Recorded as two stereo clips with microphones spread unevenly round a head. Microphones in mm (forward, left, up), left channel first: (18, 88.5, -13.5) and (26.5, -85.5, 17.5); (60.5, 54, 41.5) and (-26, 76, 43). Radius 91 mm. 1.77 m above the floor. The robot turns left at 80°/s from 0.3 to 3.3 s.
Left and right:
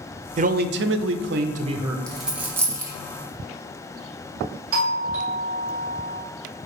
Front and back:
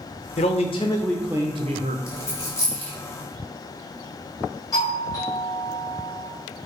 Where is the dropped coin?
10° right, 1.2 m; by 2.9 s 75° right, 1.2 m.